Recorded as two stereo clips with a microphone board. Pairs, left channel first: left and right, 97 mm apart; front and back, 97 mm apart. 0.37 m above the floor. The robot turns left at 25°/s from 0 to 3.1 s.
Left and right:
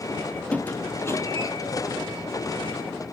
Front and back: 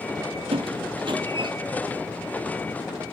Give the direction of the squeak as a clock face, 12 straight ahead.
6 o'clock.